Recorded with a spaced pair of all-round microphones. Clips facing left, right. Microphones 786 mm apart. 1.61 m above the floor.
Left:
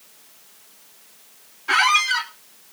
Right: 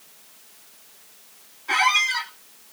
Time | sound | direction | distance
1.7 | a squeak | 50° left (ahead or behind) | 0.7 m